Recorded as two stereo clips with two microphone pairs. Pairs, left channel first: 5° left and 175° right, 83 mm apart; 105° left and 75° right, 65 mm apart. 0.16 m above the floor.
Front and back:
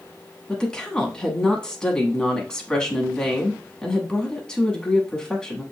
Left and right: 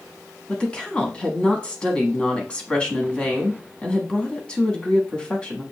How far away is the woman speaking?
About 1.0 m.